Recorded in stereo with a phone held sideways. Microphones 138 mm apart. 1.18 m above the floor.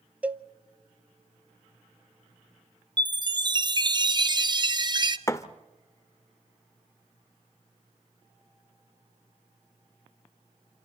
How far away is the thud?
About 0.9 m.